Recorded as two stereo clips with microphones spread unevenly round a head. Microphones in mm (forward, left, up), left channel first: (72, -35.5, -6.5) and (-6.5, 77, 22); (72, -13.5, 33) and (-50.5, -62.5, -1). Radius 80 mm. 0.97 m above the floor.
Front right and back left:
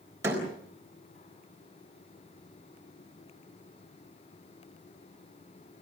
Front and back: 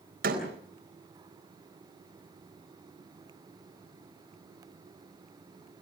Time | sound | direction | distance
0.2 | a door slam | 160° right | 4 m